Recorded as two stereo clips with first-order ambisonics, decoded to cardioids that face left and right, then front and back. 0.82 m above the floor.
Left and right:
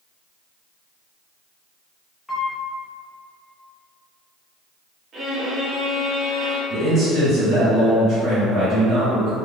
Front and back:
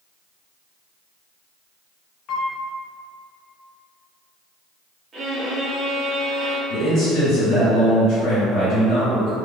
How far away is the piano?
About 0.6 m.